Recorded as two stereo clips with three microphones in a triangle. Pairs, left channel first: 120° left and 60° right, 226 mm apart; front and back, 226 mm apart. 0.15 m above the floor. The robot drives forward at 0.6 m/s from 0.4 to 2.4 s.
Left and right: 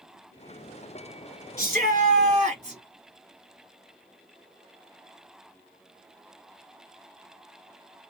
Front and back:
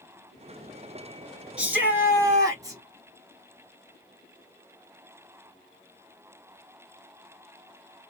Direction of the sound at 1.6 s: 95° right.